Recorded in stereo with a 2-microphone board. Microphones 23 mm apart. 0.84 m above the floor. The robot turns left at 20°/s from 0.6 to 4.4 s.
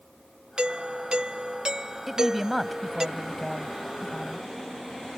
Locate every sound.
0.6 s a doorbell: 90° right; by 3.1 s 140° right
2.1 s a woman speaking: 160° right; by 4.5 s 150° left